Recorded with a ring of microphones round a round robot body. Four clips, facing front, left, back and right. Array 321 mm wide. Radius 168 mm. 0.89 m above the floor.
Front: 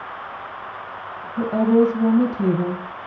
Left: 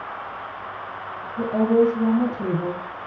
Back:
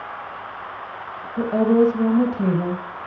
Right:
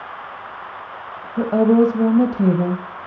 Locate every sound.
1.4 s a woman speaking: 100° right, 1.5 m